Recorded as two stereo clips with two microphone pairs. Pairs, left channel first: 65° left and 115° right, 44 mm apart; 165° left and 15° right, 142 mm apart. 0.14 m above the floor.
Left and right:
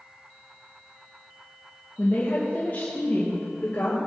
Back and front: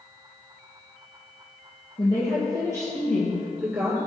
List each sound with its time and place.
2.0 s a woman speaking: 120° left, 3.5 m; by 4.0 s 50° left, 2 m